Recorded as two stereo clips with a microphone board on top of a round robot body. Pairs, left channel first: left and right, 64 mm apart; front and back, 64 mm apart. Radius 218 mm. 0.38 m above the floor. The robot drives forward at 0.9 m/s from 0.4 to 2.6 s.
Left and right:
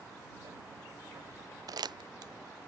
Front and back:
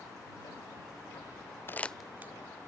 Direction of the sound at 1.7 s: 60° right.